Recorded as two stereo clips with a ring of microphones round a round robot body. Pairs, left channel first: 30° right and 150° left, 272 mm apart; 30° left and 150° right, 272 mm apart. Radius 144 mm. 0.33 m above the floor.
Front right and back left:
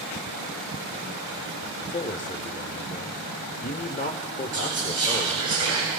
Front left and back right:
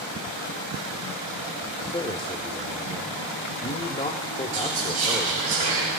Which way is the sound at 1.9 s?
10° right.